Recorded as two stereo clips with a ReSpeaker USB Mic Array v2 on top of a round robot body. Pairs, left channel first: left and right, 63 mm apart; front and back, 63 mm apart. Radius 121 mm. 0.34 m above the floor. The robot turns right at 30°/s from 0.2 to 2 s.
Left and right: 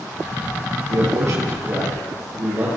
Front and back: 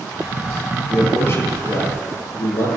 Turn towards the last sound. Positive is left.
turn(degrees=-30)